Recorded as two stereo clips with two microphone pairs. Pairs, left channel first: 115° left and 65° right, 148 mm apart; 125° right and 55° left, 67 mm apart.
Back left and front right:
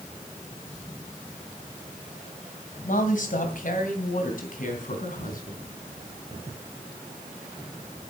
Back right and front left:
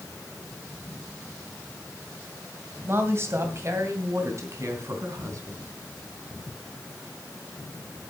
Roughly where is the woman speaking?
Left.